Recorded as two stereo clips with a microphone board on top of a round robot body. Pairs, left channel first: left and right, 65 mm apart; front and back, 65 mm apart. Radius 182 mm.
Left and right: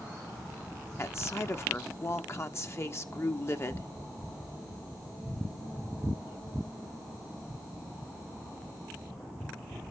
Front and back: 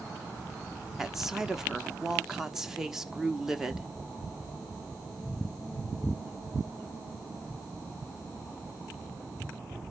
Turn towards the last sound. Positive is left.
turn(degrees=100)